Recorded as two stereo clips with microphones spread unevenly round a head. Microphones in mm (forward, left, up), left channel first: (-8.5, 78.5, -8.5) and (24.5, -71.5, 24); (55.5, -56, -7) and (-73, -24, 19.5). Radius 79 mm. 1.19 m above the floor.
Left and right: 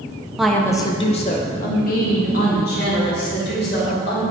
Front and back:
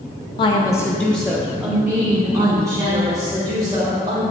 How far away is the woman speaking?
About 0.7 m.